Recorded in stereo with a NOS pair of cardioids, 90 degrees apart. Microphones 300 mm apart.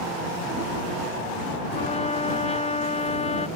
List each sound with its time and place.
1.8 s a trumpet: 20° left